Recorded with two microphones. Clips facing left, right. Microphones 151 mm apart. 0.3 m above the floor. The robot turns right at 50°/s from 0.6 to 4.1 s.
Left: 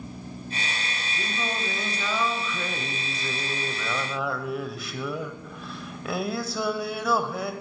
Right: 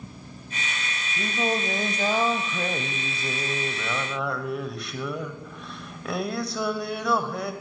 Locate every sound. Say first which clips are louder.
1.2 s singing: right 6 dB; 145° right, 0.9 m; by 7.5 s 5° left, 0.9 m